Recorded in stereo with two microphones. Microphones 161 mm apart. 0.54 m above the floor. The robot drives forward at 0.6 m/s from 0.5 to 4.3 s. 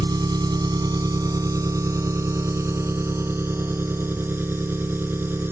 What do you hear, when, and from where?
0.0 s an engine running: 25° right (ahead or behind); by 5.5 s 15° right (ahead or behind)